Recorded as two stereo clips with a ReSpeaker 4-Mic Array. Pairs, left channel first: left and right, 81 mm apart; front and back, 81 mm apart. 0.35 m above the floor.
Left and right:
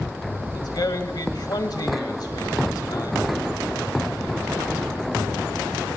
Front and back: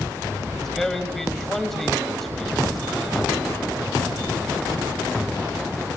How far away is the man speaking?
About 1.6 m.